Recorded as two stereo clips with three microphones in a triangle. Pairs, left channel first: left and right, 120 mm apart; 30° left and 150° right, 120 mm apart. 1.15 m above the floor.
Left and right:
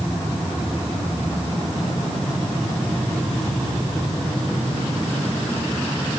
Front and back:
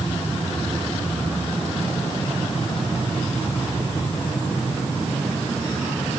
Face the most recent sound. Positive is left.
No sound to turn to.